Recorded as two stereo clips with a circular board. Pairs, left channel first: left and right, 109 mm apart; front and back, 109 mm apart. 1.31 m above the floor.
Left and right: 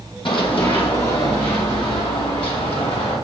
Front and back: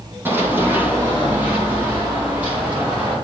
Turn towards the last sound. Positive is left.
turn(degrees=105)